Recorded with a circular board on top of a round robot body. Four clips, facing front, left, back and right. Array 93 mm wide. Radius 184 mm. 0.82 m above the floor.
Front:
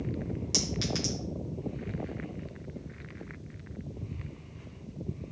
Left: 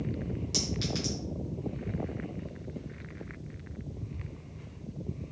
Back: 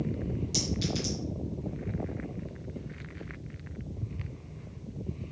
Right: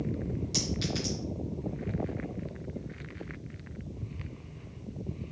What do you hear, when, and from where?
0.5 s a clink: straight ahead, 1.4 m